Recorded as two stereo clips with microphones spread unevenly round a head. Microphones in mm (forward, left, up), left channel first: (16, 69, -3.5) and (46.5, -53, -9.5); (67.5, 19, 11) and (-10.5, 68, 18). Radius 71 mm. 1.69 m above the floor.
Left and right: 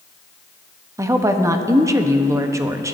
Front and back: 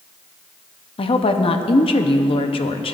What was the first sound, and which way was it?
A woman speaking, 5° right.